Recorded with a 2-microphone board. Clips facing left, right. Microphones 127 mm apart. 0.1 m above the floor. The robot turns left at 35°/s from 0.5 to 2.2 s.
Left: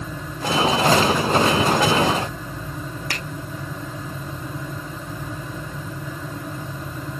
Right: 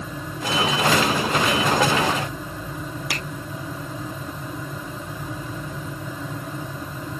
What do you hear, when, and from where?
3.1 s a finger snap: 10° right (ahead or behind), 2 m